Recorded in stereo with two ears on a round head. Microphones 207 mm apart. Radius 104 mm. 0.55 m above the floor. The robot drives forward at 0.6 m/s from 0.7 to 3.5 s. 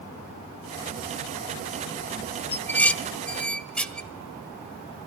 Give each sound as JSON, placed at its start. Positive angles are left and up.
{"t": 2.5, "sound": "dishes clattering", "side_deg": 10, "distance_m": 0.7}